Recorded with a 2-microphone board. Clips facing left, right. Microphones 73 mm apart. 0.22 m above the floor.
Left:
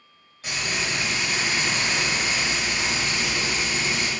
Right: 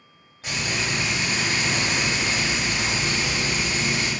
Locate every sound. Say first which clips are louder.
0.4 s frying: right 1 dB; 25° right (ahead or behind), 1.5 m